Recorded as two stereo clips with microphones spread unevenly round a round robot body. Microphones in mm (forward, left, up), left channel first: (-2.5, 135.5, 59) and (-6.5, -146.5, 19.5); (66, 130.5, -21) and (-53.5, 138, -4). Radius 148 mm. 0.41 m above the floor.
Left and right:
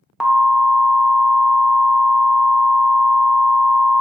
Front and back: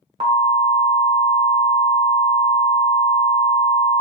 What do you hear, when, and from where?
0.2 s an alarm: 170° right, 0.6 m